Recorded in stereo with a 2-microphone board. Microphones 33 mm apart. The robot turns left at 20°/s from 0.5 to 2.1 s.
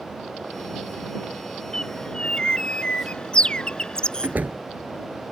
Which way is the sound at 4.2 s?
60° right (ahead or behind).